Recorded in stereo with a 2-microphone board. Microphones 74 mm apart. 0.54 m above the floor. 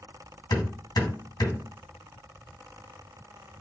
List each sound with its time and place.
0.5 s hammering: 75° left (ahead or behind), 2.5 m